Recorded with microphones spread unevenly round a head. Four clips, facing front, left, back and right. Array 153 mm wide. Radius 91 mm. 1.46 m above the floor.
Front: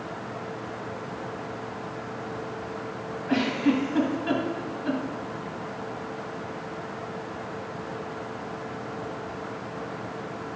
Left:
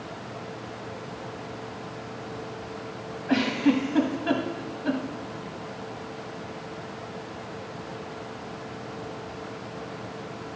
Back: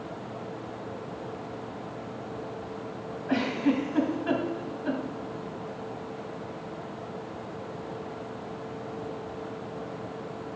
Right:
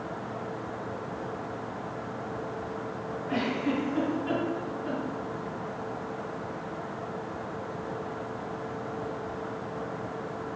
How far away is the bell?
No bell in this recording.